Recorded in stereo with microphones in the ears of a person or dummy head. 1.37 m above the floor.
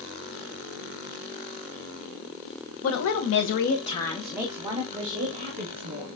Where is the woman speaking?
80° left, 1.0 m; by 6.1 s 45° right (ahead or behind), 1.8 m.